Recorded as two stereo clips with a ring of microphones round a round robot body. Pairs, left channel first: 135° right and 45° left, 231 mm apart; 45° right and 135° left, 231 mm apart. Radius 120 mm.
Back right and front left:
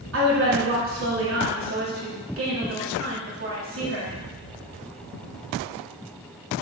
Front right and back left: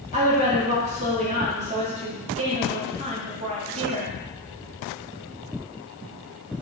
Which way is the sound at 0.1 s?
75° left.